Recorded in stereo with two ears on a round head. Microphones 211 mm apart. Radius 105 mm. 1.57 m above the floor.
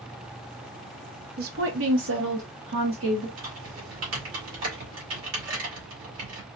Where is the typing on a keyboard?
65° right (ahead or behind), 2.0 m.